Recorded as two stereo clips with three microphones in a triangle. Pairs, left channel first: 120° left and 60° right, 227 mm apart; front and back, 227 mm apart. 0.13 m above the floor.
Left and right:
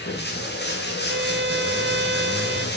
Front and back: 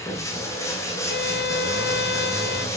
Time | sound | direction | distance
0.0 | running water | 75° left | 7.5 m
1.1 | a violin | 30° right | 0.6 m